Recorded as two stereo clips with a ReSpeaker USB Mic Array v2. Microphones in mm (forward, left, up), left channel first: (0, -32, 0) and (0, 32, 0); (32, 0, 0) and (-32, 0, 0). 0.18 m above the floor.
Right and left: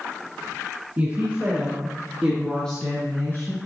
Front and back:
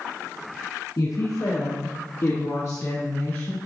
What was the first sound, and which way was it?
A woman speaking, 25° left.